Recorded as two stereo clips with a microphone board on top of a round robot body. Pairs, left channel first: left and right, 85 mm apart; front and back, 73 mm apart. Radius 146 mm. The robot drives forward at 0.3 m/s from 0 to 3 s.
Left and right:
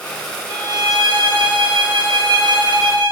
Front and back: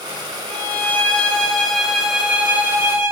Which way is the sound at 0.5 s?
55° right.